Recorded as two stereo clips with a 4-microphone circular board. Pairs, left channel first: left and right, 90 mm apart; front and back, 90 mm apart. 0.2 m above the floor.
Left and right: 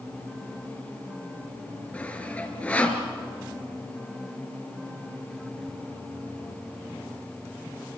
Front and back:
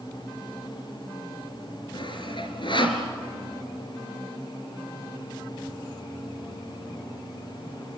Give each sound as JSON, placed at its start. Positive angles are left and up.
{"t": 1.9, "sound": "sawing", "azimuth_deg": 15, "distance_m": 3.0}